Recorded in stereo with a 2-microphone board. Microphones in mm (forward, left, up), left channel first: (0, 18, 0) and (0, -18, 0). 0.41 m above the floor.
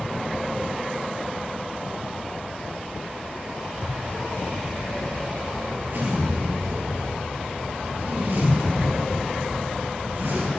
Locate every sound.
3.7 s a zipper: 65° right (ahead or behind), 3 m